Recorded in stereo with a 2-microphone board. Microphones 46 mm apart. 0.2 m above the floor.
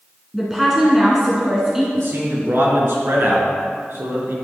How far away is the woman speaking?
About 2.5 m.